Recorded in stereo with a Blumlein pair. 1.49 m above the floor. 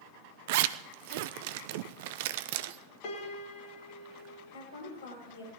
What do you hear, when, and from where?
0.5 s a zipper: 50° right, 0.6 m
3.0 s a piano: 45° left, 2.5 m
4.5 s a woman speaking: 50° left, 8.5 m